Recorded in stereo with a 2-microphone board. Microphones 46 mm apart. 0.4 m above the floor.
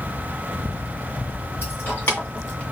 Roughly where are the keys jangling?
Left.